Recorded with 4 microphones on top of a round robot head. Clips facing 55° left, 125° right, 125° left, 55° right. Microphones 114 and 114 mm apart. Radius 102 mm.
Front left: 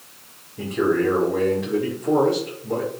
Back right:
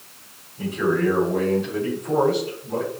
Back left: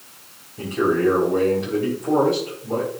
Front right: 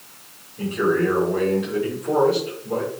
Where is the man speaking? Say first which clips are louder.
Front left 1 dB, back left 1 dB; 65° left, 5 m.